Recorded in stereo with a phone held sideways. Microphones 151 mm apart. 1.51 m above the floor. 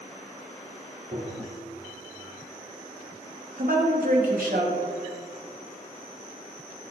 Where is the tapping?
85° right, 3.5 m.